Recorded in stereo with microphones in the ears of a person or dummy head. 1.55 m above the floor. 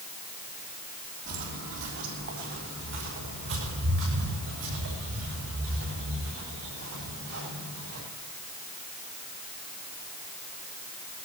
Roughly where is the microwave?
No microwave in this recording.